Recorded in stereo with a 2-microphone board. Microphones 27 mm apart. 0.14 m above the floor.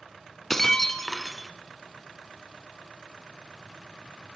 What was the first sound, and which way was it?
Breaking glass, 10° left (ahead or behind).